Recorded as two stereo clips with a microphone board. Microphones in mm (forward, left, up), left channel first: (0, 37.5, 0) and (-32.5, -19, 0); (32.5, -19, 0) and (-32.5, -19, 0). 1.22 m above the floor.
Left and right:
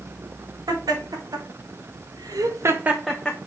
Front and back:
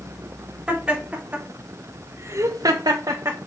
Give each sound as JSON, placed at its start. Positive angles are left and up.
{"t": 0.7, "sound": "laughter", "azimuth_deg": -105, "distance_m": 3.5}